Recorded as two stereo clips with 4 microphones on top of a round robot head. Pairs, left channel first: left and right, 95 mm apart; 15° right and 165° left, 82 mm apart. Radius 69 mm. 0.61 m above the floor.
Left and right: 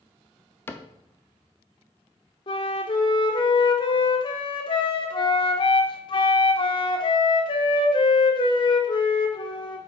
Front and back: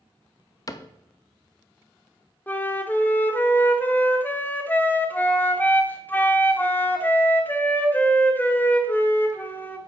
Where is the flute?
55° left, 1.2 m.